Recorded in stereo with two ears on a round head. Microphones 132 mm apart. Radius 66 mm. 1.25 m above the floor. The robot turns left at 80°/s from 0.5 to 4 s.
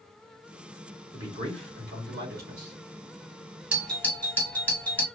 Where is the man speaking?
10° right, 1.9 m; by 2.8 s 140° right, 1.9 m.